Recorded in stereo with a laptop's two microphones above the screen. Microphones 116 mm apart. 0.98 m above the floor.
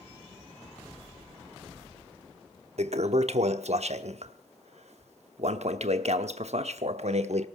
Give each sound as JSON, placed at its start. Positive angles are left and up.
{"t": 2.8, "sound": "a toilet flushing", "side_deg": -65, "distance_m": 1.0}